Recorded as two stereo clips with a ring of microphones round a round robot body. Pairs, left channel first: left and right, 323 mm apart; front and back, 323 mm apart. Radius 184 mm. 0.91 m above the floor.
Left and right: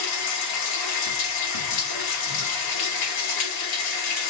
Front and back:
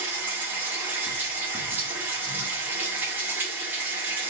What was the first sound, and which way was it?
Running water, 95° left.